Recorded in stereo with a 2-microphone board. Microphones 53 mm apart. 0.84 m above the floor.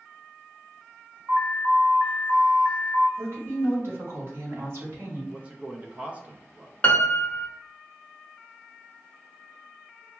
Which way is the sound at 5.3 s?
25° right (ahead or behind).